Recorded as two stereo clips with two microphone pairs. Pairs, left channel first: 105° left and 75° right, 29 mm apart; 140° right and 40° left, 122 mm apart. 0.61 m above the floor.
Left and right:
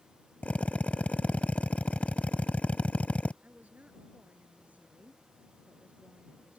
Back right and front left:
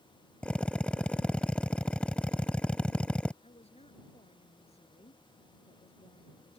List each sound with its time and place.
0.4 s a drill: 145° left
3.4 s a woman speaking: 105° right